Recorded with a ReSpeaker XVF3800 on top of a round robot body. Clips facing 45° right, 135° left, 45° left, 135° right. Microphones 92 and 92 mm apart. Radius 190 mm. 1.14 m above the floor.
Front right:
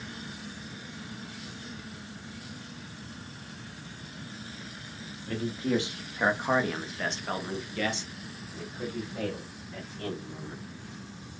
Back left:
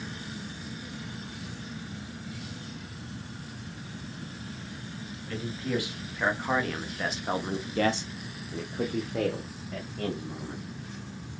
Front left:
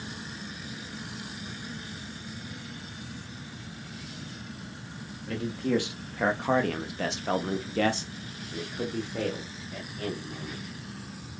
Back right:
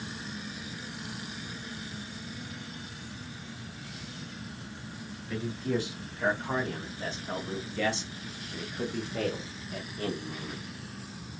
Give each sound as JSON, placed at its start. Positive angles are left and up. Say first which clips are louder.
{"t": 5.3, "sound": "a man speaking", "louder": "front right 3 dB, front left 4 dB", "azimuth_deg": 15, "distance_m": 1.4}